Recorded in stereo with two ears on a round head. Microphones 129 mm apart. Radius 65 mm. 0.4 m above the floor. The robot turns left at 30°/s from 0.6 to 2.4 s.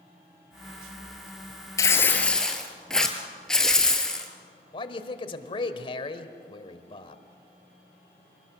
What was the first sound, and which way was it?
Tearing paper, 25° left (ahead or behind).